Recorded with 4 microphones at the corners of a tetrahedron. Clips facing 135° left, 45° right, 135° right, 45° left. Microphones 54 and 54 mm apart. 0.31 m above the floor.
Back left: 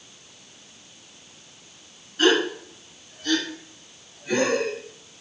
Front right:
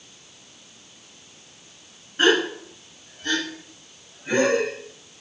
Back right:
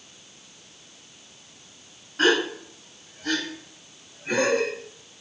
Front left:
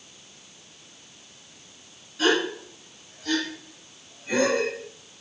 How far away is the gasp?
About 3.5 m.